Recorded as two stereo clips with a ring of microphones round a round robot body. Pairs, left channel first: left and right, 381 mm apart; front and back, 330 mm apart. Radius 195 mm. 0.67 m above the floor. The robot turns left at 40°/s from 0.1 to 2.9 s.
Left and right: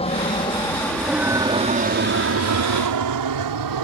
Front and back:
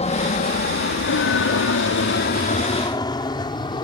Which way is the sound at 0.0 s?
40° left.